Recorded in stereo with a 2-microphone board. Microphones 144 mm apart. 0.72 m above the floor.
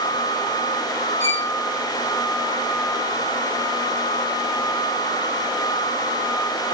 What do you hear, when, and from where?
1.2 s a violin: 50° right (ahead or behind), 3.5 m